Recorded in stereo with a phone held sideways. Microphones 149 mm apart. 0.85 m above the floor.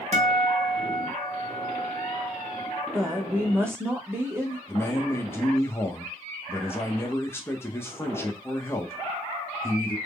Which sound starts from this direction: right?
A guitar, at 0.1 s.